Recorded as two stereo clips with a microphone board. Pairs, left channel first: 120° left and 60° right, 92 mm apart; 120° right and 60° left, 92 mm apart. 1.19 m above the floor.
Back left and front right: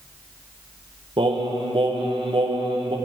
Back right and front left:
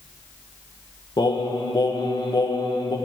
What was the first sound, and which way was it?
Singing, 80° right.